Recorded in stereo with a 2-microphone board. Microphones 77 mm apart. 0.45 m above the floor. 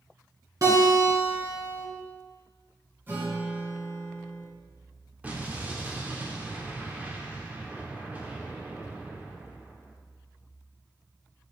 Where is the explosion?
20° right (ahead or behind), 0.8 m.